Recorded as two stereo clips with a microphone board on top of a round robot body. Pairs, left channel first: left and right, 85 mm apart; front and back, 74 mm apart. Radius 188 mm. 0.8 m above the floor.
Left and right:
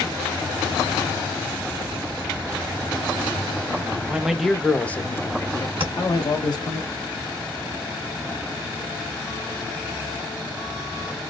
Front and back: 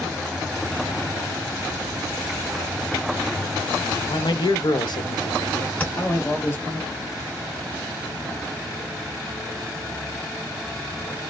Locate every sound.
4.1 s a man speaking: 15° right, 1.0 m; by 6.8 s 65° left, 1.5 m
5.8 s tapping: 75° right, 1.5 m